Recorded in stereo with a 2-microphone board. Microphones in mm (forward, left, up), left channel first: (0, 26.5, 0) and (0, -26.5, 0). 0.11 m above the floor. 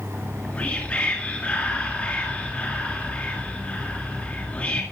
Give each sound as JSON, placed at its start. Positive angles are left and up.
{"t": 0.1, "sound": "whispering", "side_deg": 25, "distance_m": 1.9}